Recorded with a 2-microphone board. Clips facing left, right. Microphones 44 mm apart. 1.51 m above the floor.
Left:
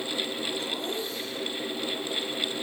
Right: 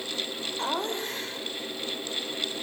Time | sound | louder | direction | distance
0.6 | laughter | right 2 dB | 50° right (ahead or behind) | 7 m